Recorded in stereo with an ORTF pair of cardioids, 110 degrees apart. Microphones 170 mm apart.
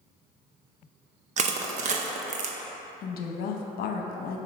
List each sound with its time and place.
1.4 s crushing: 50° right, 0.7 m
3.0 s a woman speaking: 65° left, 0.8 m